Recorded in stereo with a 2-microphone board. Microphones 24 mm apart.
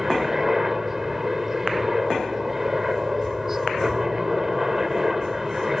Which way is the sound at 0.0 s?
10° right (ahead or behind).